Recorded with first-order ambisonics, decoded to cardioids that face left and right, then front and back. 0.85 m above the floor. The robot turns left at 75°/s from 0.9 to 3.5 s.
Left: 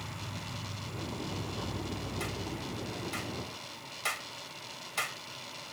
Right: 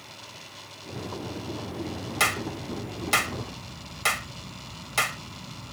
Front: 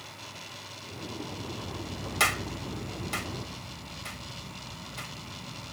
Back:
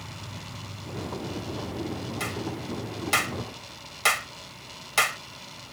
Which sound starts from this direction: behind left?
An insect, at 0.0 s.